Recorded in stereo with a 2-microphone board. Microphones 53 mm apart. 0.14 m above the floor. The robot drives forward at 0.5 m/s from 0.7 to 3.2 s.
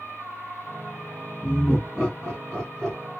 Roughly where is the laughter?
Centre.